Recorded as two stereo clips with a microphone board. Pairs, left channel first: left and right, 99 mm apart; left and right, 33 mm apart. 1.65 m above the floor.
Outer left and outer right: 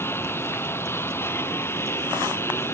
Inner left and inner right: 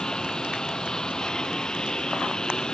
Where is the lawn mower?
25° left (ahead or behind).